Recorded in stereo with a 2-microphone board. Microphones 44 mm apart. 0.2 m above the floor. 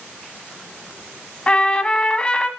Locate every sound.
1.5 s a trumpet: 25° left (ahead or behind), 1.4 m